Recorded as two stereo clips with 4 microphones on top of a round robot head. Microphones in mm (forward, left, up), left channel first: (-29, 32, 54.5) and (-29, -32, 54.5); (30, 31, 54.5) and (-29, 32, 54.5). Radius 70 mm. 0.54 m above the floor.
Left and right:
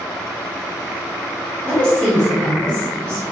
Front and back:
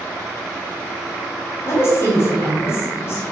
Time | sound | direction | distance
1.6 | a woman speaking | 20° left | 1.2 m